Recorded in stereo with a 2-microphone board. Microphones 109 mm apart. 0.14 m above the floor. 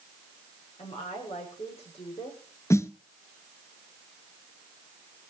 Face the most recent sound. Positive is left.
turn(degrees=25)  # may be behind; listen again after turning